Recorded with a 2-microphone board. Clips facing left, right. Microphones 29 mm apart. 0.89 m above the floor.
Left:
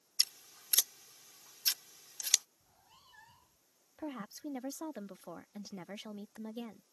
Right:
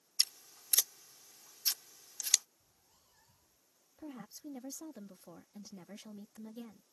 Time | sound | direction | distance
0.2 | scissors | 25° left (ahead or behind) | ?
2.6 | a cat meowing | 50° left (ahead or behind) | ?
4.0 | a woman speaking | 40° left (ahead or behind) | ?